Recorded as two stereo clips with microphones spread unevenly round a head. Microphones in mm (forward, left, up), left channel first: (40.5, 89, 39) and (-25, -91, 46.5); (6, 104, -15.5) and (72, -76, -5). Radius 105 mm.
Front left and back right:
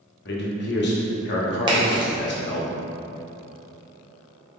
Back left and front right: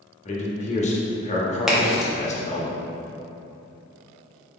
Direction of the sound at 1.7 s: 150° right.